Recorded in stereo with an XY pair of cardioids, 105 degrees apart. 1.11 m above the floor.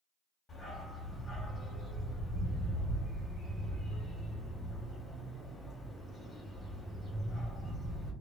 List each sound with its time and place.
0.5 s a dog barking: 40° left, 1.7 m